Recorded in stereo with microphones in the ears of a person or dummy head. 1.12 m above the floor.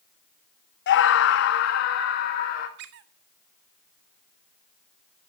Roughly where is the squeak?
Right.